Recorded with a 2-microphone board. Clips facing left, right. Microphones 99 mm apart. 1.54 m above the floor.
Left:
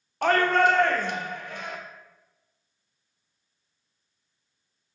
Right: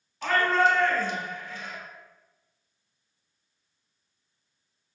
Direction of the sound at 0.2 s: 65° left (ahead or behind).